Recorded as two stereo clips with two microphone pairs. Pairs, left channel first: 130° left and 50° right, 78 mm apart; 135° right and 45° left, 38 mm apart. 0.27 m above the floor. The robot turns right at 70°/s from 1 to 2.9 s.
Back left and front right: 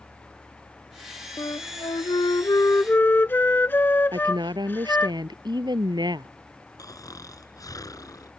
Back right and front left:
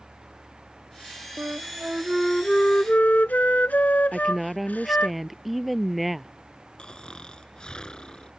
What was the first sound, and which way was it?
A flute, 85° left.